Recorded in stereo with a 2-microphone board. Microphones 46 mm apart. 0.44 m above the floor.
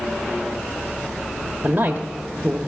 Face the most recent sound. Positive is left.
turn(degrees=-35)  # may be behind; listen again after turning